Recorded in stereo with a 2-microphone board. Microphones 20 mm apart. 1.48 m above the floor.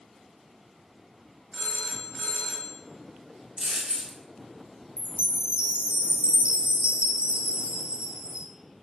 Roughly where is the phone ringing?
Left.